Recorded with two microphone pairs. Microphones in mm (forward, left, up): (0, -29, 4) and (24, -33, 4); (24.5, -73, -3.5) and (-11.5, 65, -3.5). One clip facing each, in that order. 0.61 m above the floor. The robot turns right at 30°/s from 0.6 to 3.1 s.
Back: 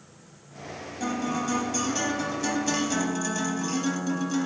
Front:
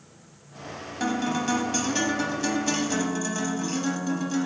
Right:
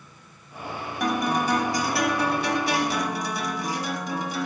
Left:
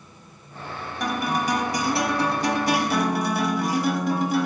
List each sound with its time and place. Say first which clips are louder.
1.0 s a guitar: front 2 dB, right 1 dB; 15° left, 0.8 m; by 4.5 s 75° left, 0.8 m